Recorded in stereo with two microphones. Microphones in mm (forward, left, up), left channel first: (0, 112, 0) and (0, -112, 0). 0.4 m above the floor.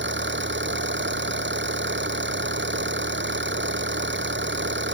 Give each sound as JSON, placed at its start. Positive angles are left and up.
{"t": 0.0, "sound": "an engine running", "side_deg": -55}